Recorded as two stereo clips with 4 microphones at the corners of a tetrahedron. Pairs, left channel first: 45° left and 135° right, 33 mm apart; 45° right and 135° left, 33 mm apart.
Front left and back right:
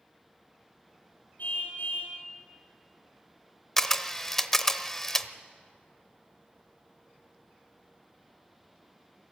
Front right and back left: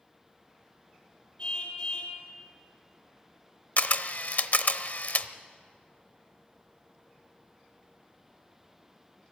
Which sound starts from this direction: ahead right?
A camera shutter, at 3.8 s.